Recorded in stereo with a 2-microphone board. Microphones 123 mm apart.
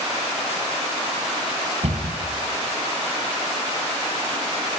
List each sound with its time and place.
1.8 s a cupboard door: 65° right (ahead or behind), 2.5 m